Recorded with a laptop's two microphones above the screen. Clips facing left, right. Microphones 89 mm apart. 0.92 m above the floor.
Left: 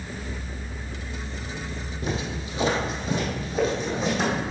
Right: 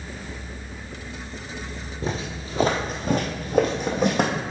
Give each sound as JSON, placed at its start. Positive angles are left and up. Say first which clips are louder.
{"t": 2.0, "sound": "footsteps", "louder": "right 1 dB", "side_deg": -30, "distance_m": 1.5}